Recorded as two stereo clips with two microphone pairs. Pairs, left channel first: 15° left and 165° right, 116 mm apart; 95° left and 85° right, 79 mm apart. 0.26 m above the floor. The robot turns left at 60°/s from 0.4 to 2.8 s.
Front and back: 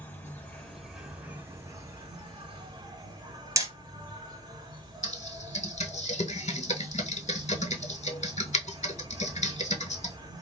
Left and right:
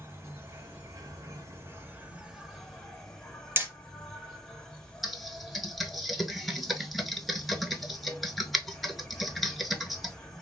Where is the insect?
45° right, 0.7 m; by 10.4 s 170° left, 0.7 m.